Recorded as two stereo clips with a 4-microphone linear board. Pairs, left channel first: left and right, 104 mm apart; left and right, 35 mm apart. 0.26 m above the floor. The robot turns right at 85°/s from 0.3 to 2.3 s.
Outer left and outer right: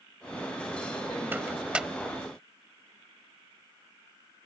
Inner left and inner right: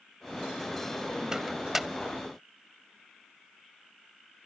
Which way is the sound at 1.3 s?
20° right (ahead or behind).